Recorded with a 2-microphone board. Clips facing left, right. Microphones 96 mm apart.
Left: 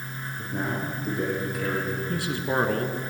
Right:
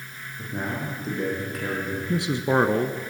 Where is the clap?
No clap in this recording.